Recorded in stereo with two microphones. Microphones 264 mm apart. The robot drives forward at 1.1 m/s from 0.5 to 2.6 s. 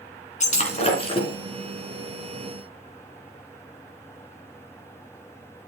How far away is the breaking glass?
About 2 m.